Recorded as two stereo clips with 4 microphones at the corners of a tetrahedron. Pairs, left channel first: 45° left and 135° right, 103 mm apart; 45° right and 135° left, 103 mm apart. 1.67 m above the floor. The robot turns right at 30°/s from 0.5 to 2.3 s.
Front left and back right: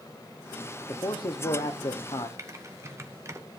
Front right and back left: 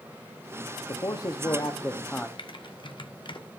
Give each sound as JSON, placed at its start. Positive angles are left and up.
{"t": 0.9, "sound": "a man speaking", "azimuth_deg": -5, "distance_m": 0.8}
{"t": 2.4, "sound": "typing on a keyboard", "azimuth_deg": -75, "distance_m": 1.1}